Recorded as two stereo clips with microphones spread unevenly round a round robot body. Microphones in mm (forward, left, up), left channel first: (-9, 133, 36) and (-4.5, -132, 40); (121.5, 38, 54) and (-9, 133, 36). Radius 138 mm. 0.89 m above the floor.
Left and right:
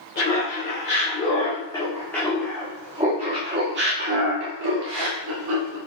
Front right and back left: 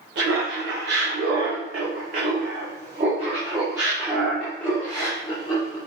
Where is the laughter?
150° left, 3 m; by 5.8 s 100° right, 2.5 m.